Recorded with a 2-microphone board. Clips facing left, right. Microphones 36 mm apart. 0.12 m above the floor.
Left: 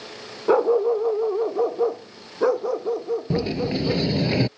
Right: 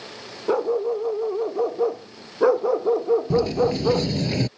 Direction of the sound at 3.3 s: 20° left (ahead or behind).